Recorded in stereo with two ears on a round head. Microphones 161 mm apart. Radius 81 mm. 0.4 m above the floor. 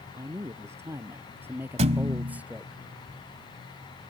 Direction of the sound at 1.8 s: 35° right (ahead or behind).